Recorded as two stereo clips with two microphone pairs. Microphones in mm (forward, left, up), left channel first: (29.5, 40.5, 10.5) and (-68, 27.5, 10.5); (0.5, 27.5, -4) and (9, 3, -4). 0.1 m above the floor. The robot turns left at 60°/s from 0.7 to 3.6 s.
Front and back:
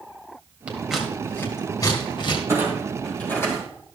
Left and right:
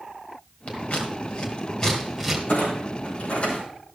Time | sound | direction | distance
0.7 | scissors | 115° left | 2.5 m
2.5 | a clunk | 125° left | 4 m